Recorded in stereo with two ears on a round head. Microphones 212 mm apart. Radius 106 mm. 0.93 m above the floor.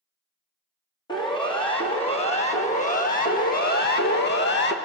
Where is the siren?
20° left (ahead or behind), 2.5 m; by 4.8 s 45° left (ahead or behind), 1.3 m.